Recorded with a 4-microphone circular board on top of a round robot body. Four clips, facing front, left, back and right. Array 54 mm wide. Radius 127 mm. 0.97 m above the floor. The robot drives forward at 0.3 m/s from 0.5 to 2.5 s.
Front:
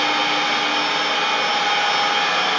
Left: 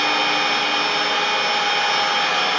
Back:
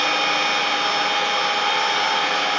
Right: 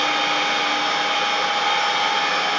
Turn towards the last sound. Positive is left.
turn(degrees=30)